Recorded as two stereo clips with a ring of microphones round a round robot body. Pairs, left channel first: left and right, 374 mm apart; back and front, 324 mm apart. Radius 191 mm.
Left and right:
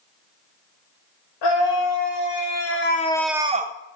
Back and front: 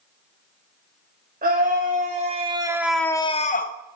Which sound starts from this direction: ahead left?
A scream, at 1.4 s.